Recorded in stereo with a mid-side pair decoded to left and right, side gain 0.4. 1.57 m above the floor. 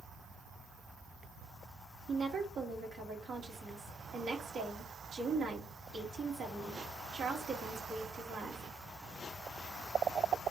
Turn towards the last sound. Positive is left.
turn(degrees=-65)